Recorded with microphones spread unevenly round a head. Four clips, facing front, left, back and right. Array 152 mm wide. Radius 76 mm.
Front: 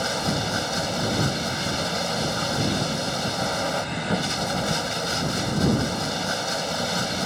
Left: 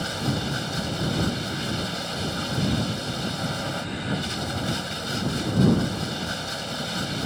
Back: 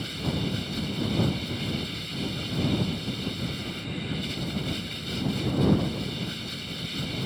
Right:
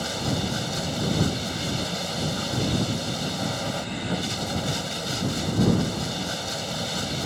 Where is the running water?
10° right.